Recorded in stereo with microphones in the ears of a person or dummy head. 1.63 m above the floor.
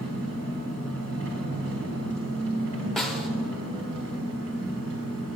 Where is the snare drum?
5° left (ahead or behind), 0.7 m.